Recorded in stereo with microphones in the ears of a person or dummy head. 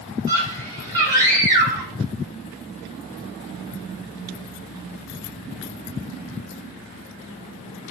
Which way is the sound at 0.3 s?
20° right (ahead or behind).